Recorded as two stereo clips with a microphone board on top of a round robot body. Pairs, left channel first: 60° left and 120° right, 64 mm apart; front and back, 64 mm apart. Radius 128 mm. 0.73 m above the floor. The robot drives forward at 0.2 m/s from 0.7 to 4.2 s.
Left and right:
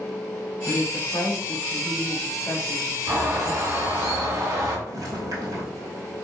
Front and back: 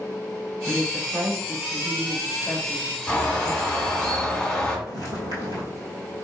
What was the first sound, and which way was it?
A woman speaking, 70° left.